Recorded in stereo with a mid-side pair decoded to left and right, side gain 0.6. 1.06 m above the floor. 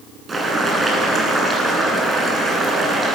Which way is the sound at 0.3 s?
15° right.